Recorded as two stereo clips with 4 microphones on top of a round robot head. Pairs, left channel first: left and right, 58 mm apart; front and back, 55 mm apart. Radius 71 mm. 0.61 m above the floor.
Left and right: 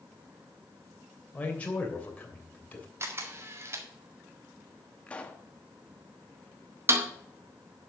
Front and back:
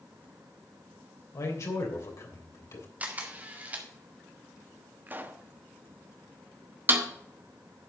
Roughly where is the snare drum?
Behind right.